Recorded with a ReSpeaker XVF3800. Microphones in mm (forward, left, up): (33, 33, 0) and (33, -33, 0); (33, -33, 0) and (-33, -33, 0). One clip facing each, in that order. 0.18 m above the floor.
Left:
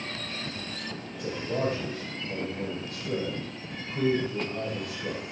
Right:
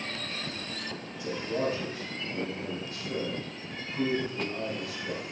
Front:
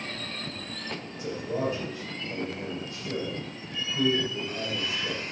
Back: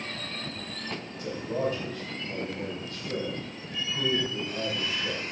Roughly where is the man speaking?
Left.